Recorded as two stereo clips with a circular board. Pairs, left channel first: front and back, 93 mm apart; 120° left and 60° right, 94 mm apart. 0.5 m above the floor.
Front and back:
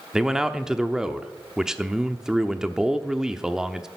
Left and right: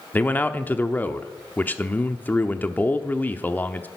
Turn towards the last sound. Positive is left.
turn(degrees=110)